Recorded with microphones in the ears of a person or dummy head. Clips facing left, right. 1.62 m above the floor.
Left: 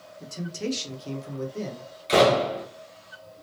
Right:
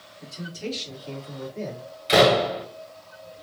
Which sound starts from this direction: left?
A man speaking, at 0.2 s.